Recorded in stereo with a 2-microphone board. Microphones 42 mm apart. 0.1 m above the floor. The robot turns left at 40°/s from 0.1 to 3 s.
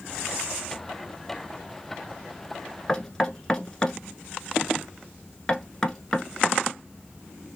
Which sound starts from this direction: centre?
Knocking, at 2.9 s.